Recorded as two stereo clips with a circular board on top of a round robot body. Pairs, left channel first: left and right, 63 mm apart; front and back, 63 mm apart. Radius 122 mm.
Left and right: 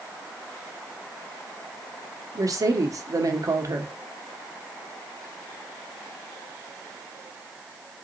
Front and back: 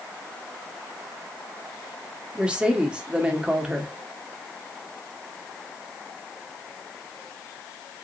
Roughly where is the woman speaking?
Right.